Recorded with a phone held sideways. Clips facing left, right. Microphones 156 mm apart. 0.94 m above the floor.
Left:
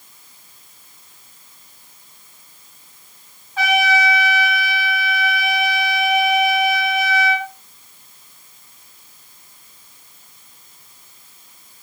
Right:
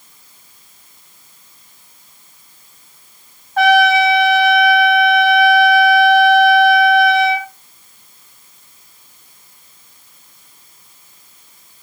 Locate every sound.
3.6 s a trumpet: 55° right (ahead or behind), 2.5 m